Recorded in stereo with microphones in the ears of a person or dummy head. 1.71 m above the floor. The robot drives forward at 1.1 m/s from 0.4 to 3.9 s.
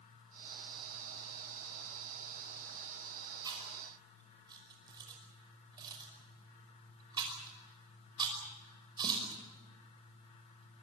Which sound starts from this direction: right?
Chewing, at 3.5 s.